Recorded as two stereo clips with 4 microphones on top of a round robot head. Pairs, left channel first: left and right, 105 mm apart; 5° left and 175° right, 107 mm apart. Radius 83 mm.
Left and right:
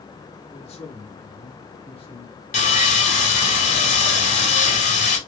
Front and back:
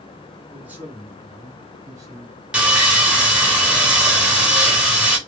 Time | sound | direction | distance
0.5 | a man speaking | 105° left | 1.6 m
2.5 | sawing | 105° left | 2.0 m